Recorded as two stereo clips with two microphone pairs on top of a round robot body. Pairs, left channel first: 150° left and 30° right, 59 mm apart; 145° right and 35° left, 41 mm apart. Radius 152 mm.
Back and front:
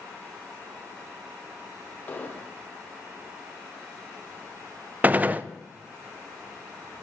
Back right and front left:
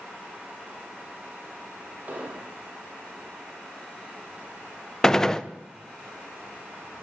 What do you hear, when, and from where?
2.1 s an explosion: 90° left, 1.6 m
5.0 s a gunshot: 65° right, 0.7 m